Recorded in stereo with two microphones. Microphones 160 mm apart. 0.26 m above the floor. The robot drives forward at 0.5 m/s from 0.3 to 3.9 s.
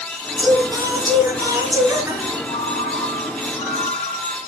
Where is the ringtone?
40° left (ahead or behind), 2.5 m; by 4.5 s 35° left (ahead or behind), 3 m.